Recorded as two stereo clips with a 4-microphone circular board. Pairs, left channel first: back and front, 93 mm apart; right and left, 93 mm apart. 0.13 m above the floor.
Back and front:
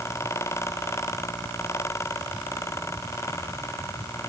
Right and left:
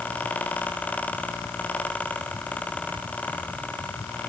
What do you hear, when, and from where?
Only background noise.